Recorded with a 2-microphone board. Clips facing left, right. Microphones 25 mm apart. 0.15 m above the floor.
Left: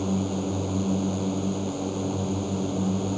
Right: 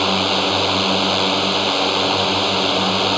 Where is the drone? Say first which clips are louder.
Right 11 dB; 65° right (ahead or behind).